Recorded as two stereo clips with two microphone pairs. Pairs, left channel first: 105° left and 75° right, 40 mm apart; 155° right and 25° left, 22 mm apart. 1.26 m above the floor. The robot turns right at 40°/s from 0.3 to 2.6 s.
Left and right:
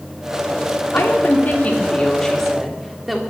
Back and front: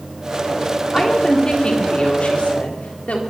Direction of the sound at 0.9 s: 130° left.